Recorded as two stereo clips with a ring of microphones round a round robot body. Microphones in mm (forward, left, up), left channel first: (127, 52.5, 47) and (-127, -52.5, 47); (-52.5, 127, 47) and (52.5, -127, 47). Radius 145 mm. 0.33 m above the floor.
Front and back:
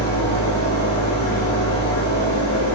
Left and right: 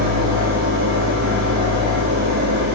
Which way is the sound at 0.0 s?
20° right.